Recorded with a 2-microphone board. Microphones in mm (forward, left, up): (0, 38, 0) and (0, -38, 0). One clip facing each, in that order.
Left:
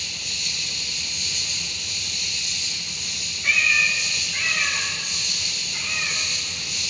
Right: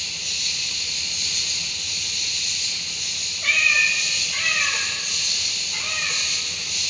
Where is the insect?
60° right (ahead or behind), 9.5 m.